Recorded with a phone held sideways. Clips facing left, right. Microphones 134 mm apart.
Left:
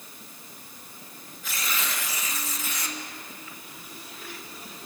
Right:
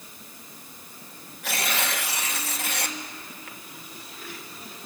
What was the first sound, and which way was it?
Tearing paper, 70° right (ahead or behind).